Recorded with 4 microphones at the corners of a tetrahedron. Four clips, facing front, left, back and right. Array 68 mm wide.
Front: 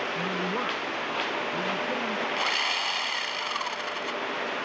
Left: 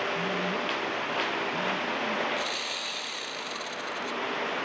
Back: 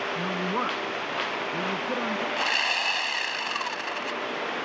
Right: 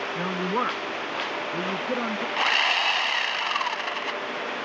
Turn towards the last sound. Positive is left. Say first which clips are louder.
# right 10 dB, back 3 dB
turn(degrees=-95)